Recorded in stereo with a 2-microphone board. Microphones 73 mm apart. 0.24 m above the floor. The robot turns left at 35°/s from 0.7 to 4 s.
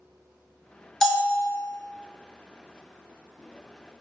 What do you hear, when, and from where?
1.0 s a bell: 10° left (ahead or behind), 0.7 m; by 1.4 s 5° right (ahead or behind), 0.7 m